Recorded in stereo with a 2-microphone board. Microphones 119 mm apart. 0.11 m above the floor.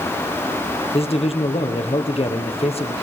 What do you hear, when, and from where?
0.9 s a man speaking: 55° left (ahead or behind), 3 m